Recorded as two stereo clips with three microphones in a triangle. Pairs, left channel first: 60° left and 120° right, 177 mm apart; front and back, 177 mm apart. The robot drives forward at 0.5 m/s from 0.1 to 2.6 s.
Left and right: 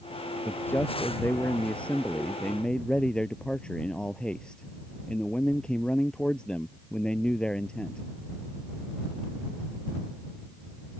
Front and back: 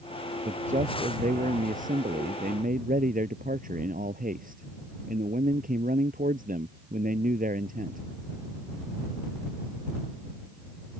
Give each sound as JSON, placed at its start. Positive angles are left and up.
{"t": 0.5, "sound": "a man speaking", "azimuth_deg": 135}